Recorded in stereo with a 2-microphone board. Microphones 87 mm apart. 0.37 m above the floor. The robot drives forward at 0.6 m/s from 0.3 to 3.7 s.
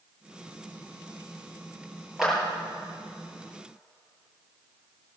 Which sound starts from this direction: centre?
A clap, at 2.2 s.